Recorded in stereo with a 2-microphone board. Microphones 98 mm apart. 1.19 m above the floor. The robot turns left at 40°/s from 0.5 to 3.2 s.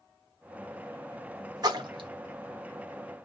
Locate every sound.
1.6 s a splash: 40° right (ahead or behind), 1.2 m; by 2.1 s 60° right (ahead or behind), 1.2 m